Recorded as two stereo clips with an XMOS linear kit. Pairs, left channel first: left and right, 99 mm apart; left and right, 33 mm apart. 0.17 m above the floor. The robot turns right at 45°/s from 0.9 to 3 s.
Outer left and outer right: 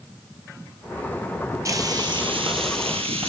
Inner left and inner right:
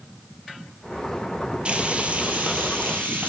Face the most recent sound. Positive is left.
turn(degrees=-85)